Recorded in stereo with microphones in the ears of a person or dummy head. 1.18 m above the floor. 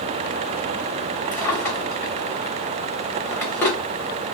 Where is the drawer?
15° left (ahead or behind), 1.0 m.